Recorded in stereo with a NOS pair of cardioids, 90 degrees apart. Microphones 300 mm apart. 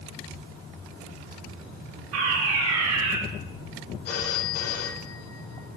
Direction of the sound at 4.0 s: 55° left.